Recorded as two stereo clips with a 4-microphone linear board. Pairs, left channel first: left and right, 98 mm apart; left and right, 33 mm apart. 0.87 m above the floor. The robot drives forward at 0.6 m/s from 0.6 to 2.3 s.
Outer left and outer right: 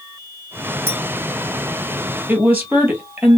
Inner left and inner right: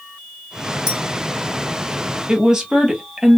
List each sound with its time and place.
0.9 s a clink: 25° right (ahead or behind), 2 m
2.3 s a woman speaking: 20° right (ahead or behind), 1.7 m